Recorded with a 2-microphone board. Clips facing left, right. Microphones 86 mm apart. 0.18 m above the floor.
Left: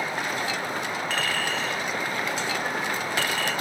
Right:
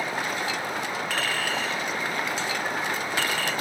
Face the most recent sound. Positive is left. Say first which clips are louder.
# even
turn(degrees=-5)  # may be behind; listen again after turning